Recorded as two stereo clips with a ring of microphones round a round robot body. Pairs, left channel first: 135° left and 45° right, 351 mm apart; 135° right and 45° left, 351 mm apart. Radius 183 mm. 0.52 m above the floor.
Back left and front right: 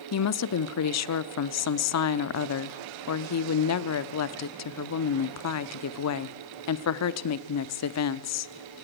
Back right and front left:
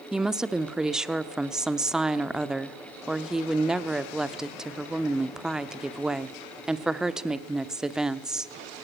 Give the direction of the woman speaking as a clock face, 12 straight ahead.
8 o'clock.